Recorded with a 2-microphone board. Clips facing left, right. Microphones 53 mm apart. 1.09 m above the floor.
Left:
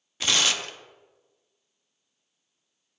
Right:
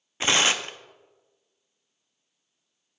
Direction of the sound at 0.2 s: 30° right (ahead or behind).